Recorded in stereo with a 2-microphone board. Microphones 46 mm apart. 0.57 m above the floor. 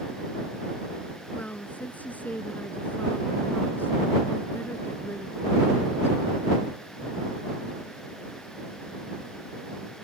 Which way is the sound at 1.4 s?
35° left (ahead or behind).